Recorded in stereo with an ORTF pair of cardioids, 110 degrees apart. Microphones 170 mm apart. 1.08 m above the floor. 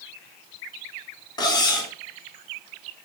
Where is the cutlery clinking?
25° left, 1.8 m.